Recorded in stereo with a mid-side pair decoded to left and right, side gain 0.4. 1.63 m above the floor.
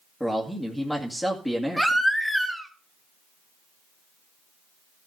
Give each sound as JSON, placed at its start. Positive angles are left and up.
{"t": 0.2, "sound": "a man speaking", "azimuth_deg": 0, "distance_m": 2.5}
{"t": 1.8, "sound": "a baby crying", "azimuth_deg": 0, "distance_m": 2.5}